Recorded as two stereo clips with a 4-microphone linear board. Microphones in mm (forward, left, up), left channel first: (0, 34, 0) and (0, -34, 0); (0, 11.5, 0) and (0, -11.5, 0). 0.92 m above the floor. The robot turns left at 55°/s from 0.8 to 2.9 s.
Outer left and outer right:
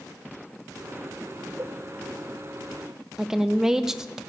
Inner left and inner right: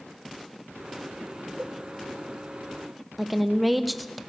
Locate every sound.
1.6 s a cowbell: 45° right (ahead or behind), 0.7 m; by 1.8 s 50° right (ahead or behind), 0.7 m
3.2 s a woman speaking: 10° right (ahead or behind), 0.6 m